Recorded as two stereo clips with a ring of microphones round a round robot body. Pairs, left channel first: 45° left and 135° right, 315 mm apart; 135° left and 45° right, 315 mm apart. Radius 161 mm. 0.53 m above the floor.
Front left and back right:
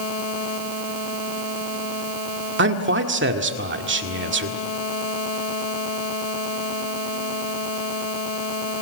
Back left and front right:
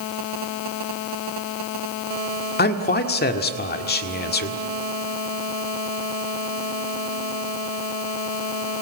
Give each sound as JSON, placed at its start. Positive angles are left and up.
{"t": 2.6, "sound": "a man speaking", "azimuth_deg": -175, "distance_m": 1.7}